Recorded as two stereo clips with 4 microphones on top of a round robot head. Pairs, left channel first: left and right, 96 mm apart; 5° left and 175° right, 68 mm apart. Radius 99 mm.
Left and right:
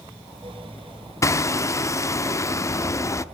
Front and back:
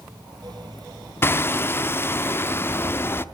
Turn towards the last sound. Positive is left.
turn(degrees=45)